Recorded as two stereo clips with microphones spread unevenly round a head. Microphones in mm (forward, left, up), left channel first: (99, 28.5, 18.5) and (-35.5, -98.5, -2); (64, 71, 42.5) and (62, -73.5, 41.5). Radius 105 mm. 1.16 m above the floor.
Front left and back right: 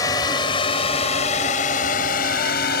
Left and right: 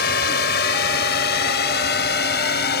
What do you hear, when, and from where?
0.0 s a drone: 115° left; by 2.8 s 90° left